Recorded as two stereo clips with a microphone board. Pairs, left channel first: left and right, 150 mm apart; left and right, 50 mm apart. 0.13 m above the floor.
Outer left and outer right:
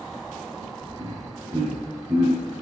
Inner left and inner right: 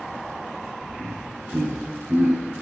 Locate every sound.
1.0 s laughter: 45° right (ahead or behind), 2.5 m; by 2.4 s 30° right (ahead or behind), 1.8 m